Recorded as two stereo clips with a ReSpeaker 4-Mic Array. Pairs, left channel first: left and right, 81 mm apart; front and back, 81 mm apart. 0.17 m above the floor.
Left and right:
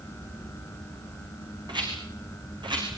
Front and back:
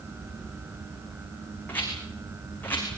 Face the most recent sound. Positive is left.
turn(degrees=-65)